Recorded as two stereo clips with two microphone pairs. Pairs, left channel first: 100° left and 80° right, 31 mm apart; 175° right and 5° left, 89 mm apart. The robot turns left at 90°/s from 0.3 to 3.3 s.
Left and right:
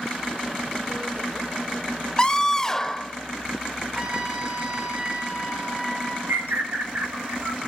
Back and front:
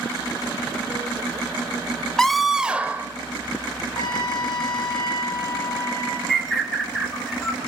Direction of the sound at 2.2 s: 110° left.